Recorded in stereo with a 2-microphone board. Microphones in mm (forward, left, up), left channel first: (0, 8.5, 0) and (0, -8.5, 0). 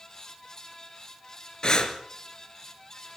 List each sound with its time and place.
1.6 s breathing: 50° left (ahead or behind), 2.5 m